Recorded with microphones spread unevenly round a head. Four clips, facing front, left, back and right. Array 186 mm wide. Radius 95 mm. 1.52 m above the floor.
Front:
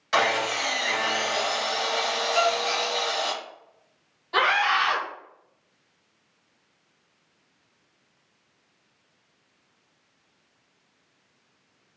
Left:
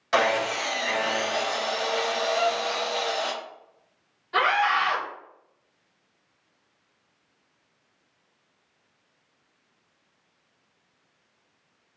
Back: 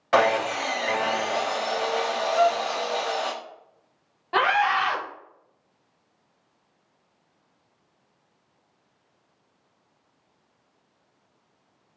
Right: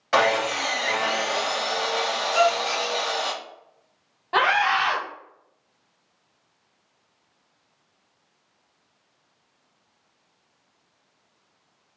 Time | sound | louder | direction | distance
0.1 | sawing | right 2 dB, back 3 dB | 155° right | 0.5 m
2.3 | a gasp | right 4 dB, back 3 dB | 25° right | 0.6 m
4.3 | a scream | right 2 dB, back 1 dB | 125° right | 1.1 m